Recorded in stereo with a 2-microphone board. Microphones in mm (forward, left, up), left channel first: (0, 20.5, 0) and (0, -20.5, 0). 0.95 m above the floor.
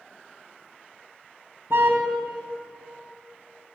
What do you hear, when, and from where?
1.7 s a car horn: 65° right (ahead or behind), 3 m